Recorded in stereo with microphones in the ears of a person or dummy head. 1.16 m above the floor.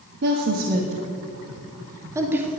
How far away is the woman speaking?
About 1.6 m.